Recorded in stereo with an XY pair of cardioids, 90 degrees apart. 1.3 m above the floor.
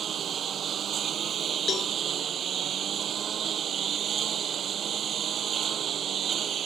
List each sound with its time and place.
0.0 s a lawn mower: 60° right
1.7 s a cowbell: 55° left